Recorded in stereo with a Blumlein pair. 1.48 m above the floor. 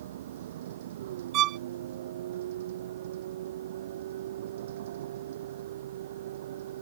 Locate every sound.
0.0 s a vehicle: 60° right
1.3 s a violin: 35° right